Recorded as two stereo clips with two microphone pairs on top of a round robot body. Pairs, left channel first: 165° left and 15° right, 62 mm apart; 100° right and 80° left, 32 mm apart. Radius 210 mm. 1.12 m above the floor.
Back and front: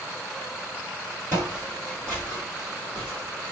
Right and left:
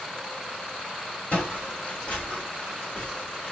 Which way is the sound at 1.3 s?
80° right.